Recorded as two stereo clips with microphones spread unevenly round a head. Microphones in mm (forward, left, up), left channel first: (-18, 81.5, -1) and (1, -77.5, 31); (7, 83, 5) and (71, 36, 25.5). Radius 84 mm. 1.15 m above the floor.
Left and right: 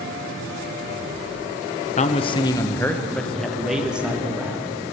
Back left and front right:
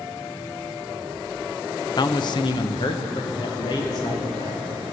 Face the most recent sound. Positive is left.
turn(degrees=-165)